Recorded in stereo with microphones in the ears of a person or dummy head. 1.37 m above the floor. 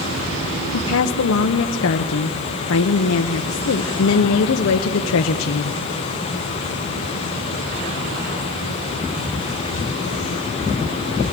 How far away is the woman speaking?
About 0.7 m.